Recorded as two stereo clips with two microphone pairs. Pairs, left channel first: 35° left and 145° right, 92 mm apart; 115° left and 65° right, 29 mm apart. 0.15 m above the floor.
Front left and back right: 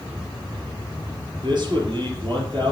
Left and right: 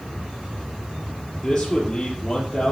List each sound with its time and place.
1.4 s a man speaking: 175° right, 3.5 m